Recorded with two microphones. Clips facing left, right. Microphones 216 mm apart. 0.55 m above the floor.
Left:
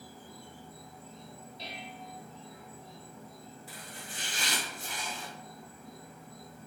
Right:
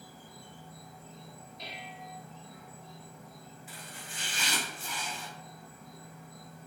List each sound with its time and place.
0.0 s an insect: 30° left (ahead or behind), 1.4 m
1.6 s dishes clattering: 30° left (ahead or behind), 0.6 m
3.7 s chopping: 40° left (ahead or behind), 1.3 m